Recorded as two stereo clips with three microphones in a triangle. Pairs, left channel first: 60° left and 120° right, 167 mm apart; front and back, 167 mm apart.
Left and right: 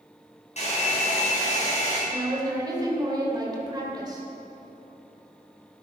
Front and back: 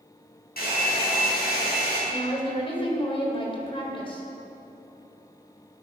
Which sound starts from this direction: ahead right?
A woman speaking, at 2.1 s.